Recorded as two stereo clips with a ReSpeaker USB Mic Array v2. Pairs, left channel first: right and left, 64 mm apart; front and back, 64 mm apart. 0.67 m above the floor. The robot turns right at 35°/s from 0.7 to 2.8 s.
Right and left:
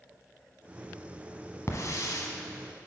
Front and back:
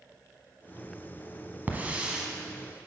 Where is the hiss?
120° right, 0.9 m; by 2.3 s 100° right, 0.9 m.